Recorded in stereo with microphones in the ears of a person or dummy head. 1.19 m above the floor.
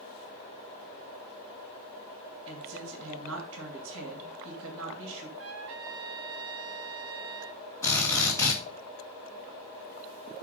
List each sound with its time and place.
2.5 s a woman speaking: 70° right (ahead or behind), 2.5 m
5.4 s a trumpet: 60° right (ahead or behind), 0.8 m
7.8 s a drill: 15° left (ahead or behind), 3 m